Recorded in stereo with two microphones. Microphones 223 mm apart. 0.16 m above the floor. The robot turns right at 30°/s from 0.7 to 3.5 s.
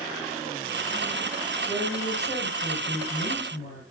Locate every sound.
1.6 s a woman speaking: 5° right, 3.5 m; by 3.8 s 50° left, 3.5 m